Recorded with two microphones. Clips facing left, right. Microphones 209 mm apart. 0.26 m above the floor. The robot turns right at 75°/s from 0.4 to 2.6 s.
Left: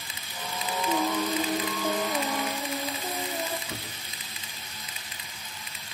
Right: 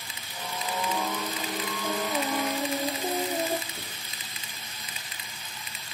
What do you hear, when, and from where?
0.9 s singing: 75° left, 3.5 m; by 3.6 s 155° right, 3.5 m
3.7 s a door slam: 75° left (ahead or behind), 9.5 m